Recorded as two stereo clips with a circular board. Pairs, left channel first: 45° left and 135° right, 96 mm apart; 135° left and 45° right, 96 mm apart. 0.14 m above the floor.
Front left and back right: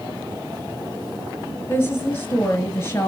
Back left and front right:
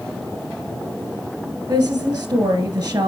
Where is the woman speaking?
10° right, 1.9 m.